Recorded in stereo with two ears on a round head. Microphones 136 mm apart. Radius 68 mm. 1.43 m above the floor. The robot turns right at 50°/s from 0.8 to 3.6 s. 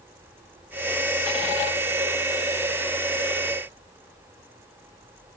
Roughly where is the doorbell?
No doorbell in this recording.